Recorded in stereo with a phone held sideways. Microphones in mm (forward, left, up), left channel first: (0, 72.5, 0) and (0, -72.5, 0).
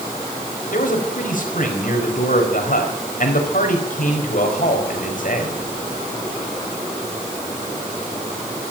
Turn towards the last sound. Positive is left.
turn(degrees=65)  # may be behind; listen again after turning